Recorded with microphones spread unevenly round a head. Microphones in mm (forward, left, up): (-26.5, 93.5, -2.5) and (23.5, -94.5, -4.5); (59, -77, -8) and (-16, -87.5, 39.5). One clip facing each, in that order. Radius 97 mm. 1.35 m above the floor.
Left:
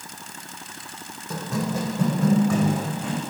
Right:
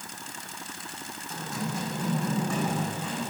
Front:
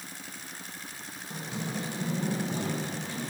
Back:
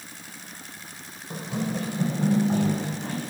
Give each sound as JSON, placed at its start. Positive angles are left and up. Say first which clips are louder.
{"t": 1.3, "sound": "running footsteps", "louder": "left 7 dB, back 6 dB", "azimuth_deg": 125, "distance_m": 3.5}